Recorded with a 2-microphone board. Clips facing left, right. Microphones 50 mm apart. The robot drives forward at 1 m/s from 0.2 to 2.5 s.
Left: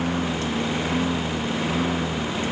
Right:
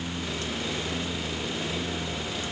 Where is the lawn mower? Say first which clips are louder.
Left 8 dB; 55° left (ahead or behind); by 2.5 s 60° left (ahead or behind).